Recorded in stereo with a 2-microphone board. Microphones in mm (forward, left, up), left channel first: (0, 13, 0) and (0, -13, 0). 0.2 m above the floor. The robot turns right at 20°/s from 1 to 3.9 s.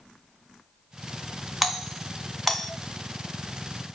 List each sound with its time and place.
1.6 s a doorbell: 10° right (ahead or behind), 2 m; by 2.7 s 5° left (ahead or behind), 2 m